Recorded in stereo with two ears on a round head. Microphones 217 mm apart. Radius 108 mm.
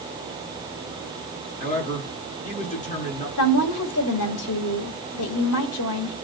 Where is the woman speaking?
70° left (ahead or behind), 2.5 m.